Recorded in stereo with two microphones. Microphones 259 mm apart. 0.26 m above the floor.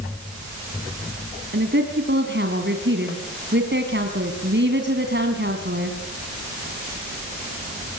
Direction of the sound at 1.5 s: 45° right (ahead or behind).